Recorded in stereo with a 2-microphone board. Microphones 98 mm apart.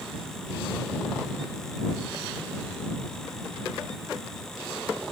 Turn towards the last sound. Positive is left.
No sound to turn to.